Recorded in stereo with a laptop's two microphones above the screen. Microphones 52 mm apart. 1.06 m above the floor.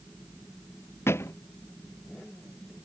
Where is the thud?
55° left (ahead or behind).